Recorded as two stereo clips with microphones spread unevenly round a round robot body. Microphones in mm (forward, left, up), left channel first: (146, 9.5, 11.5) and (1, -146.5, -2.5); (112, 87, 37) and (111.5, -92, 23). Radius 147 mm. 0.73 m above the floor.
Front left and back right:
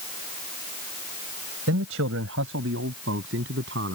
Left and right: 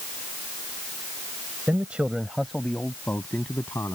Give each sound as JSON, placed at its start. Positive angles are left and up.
{"t": 1.7, "sound": "a man speaking", "azimuth_deg": -175}